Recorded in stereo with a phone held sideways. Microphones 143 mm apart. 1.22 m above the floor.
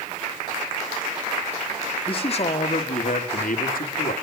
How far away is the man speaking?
About 2.5 m.